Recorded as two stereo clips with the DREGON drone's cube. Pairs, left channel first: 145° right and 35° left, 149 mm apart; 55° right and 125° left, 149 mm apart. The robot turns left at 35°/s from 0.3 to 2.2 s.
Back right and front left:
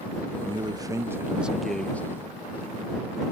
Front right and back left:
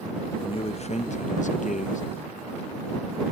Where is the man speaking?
10° right; by 2.0 s 70° right.